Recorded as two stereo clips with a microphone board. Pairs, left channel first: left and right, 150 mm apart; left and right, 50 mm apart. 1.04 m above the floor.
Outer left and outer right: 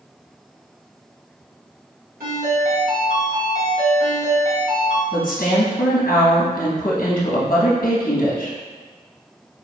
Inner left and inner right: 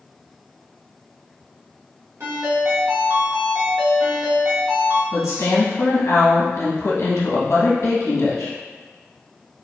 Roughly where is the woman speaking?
Left.